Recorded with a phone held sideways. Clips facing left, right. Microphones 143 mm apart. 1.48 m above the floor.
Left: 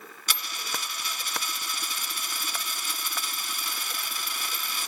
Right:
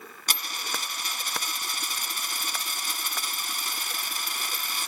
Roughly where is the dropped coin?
Right.